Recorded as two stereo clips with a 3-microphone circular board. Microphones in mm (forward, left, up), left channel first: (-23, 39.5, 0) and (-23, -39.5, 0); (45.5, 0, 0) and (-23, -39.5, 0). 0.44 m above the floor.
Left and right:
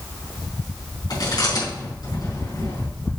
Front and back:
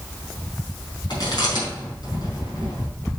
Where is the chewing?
55° left, 4.5 m.